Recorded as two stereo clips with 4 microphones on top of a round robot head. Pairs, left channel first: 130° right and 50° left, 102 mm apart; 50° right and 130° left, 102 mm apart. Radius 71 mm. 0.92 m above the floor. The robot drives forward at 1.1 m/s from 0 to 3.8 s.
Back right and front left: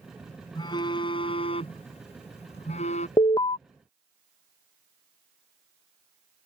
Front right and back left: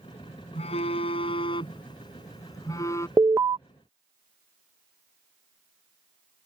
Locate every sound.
0.6 s a phone buzzing: 80° right; by 3.1 s 115° right
3.2 s an alarm: 165° right; by 3.6 s 170° right